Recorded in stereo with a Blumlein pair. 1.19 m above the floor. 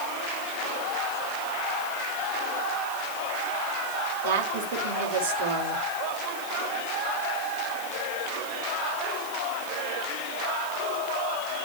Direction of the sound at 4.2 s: 55° right.